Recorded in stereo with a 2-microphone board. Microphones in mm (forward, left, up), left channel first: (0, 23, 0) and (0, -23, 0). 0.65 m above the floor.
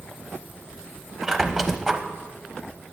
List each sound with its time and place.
1.2 s a squeak: 10° right (ahead or behind), 0.8 m